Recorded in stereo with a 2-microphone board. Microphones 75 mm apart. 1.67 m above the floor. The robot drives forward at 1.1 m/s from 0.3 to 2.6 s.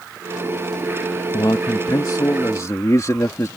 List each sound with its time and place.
1.3 s a man speaking: 70° left (ahead or behind); by 3.5 s 45° left (ahead or behind)